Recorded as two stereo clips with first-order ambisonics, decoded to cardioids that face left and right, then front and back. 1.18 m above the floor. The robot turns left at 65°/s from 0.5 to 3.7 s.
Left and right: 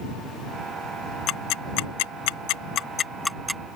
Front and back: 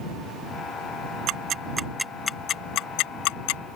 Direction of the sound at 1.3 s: 140° left.